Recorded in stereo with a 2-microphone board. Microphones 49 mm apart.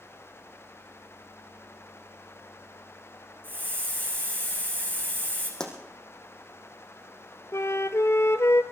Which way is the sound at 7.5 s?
75° left (ahead or behind).